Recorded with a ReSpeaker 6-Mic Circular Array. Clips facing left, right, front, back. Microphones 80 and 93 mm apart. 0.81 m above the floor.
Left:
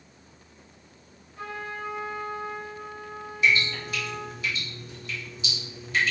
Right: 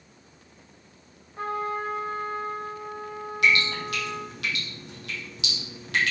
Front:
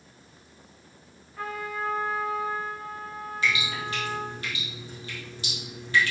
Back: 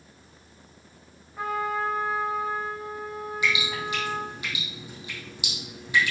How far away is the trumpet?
About 1.3 m.